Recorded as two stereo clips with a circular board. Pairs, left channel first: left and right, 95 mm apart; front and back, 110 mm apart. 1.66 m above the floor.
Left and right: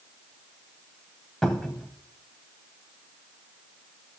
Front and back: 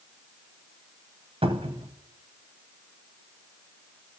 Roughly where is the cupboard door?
Behind.